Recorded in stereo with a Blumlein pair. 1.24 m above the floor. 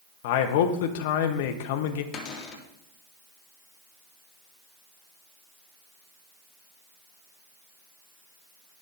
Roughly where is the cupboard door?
Ahead left.